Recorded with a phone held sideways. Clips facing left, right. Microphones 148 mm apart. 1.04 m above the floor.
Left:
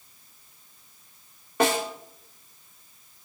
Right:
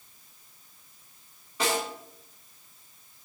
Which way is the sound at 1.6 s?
60° left (ahead or behind).